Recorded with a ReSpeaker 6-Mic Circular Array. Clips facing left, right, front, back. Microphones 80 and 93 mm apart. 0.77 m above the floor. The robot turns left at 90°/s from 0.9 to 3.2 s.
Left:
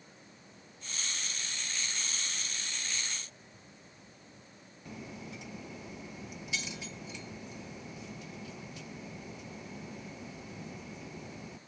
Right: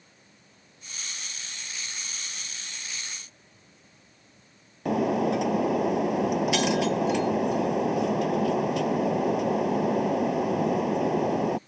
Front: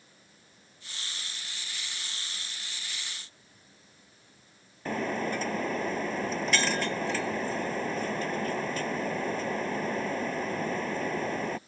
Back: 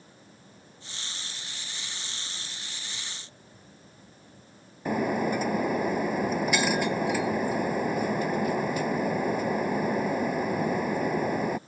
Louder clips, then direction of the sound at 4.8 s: Right 22 dB, back 4 dB; 100° right.